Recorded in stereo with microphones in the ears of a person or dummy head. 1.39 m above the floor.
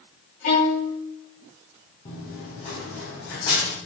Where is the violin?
40° left (ahead or behind), 4 m.